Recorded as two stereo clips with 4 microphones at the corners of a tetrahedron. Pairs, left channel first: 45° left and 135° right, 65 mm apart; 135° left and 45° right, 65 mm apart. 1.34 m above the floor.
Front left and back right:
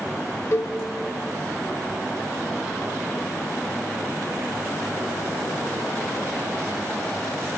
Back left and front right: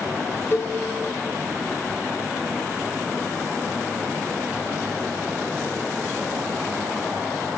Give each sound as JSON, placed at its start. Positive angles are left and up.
{"t": 0.5, "sound": "a cowbell", "azimuth_deg": 85, "distance_m": 0.6}